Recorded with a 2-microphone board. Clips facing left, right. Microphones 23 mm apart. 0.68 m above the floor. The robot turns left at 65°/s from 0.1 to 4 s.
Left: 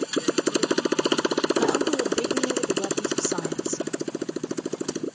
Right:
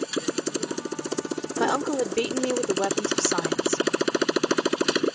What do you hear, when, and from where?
0.0 s a motorcycle: straight behind; by 5.2 s 75° right
1.6 s a woman speaking: 30° right; by 3.8 s 175° right